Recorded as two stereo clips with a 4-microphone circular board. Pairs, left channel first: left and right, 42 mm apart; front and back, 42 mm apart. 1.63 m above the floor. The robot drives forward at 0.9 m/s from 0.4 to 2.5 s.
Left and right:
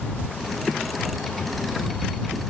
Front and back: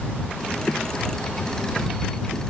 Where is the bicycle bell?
No bicycle bell in this recording.